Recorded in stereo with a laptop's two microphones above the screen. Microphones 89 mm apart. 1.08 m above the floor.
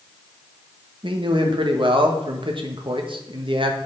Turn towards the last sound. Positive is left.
turn(degrees=-70)  # may be behind; listen again after turning